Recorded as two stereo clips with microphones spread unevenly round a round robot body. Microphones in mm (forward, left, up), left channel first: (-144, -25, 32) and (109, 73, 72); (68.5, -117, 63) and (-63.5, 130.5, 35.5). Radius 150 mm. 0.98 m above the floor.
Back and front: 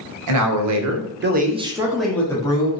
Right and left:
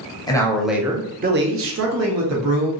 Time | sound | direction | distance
0.3 | a man speaking | 15° left | 0.7 m